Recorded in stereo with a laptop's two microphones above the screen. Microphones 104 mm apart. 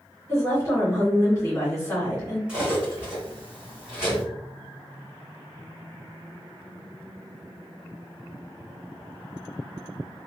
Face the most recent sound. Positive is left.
turn(degrees=-10)  # may be behind; listen again after turning